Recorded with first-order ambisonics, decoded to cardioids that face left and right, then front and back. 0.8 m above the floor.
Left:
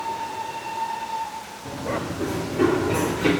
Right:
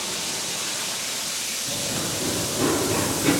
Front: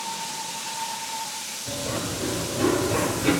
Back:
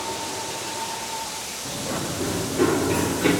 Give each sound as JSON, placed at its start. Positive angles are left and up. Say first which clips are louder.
{"t": 1.6, "sound": "running footsteps", "louder": "right 1 dB, even", "azimuth_deg": 155, "distance_m": 5.5}